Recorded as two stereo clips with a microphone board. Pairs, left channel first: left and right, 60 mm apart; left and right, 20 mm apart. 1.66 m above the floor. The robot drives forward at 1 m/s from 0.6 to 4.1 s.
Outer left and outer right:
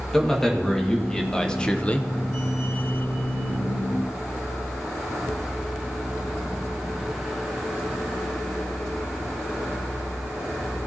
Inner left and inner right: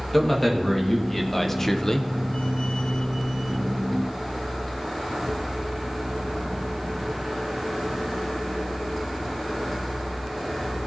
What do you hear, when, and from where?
0.1 s a man speaking: 10° left (ahead or behind), 2.0 m; by 2.1 s 25° left (ahead or behind), 0.6 m